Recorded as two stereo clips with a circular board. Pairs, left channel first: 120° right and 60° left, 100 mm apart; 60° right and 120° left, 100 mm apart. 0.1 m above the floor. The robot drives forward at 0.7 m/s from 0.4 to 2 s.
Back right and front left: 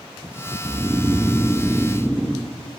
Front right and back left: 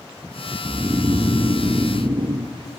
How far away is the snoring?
About 0.9 m.